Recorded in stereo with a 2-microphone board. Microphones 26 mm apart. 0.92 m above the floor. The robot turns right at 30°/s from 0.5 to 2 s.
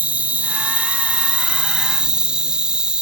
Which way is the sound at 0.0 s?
85° right.